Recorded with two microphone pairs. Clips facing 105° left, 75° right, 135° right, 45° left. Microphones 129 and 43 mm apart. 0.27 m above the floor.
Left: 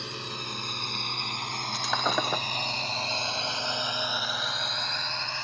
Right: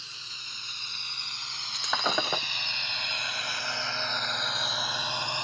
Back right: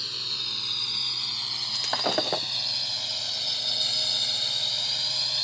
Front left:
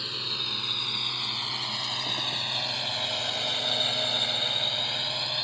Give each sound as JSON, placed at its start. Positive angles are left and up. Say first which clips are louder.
{"t": 0.0, "sound": "a drone", "louder": "left 14 dB, front left 1 dB", "azimuth_deg": 115}
{"t": 1.7, "sound": "breaking glass", "louder": "left 1 dB, back right 4 dB", "azimuth_deg": -165}